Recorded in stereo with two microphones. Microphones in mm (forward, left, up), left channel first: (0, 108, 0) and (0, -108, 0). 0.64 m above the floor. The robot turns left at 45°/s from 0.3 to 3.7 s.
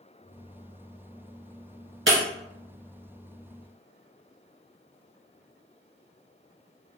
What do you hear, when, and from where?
2.1 s breaking glass: 65° right (ahead or behind), 1.3 m; by 2.2 s 70° right (ahead or behind), 1.3 m